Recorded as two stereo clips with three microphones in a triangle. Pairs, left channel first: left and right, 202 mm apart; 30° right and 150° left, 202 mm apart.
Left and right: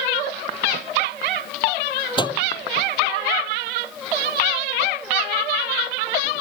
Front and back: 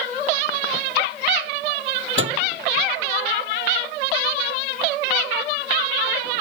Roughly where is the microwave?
Behind left.